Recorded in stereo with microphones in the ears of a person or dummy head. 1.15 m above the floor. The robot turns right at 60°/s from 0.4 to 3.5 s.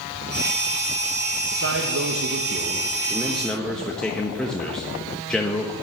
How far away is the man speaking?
About 1.2 m.